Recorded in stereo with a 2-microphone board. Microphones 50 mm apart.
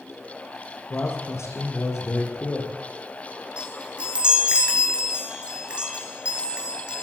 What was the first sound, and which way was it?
A man speaking, 65° left (ahead or behind).